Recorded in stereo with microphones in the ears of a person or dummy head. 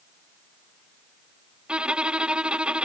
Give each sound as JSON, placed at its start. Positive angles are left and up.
{"t": 1.7, "sound": "a violin", "side_deg": -5}